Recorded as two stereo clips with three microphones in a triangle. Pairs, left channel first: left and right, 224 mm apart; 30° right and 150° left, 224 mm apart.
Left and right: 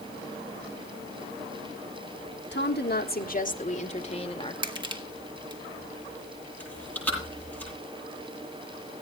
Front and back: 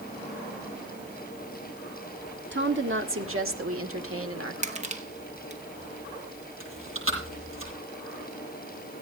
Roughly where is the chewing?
Behind.